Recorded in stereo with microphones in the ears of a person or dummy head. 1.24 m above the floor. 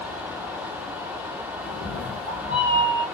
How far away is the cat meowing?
About 1.2 m.